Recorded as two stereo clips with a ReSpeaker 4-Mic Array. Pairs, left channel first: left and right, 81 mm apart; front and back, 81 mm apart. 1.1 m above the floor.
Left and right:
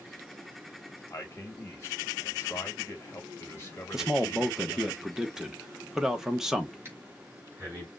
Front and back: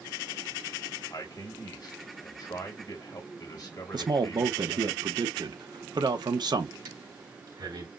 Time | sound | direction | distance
1.1 | a man speaking | 30° left | 1.7 m
3.9 | a man speaking | 175° right | 0.9 m
6.8 | breathing | 150° right | 3 m